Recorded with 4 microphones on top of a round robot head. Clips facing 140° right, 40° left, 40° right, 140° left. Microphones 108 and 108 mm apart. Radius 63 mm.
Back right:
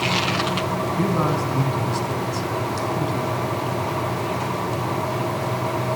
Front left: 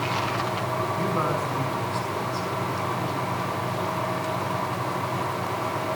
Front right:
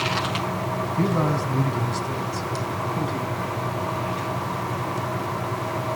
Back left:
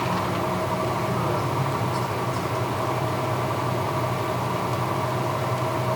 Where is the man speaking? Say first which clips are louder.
Back right 6 dB, front right 2 dB; 80° right, 5 m; by 3.4 s 100° right, 5 m.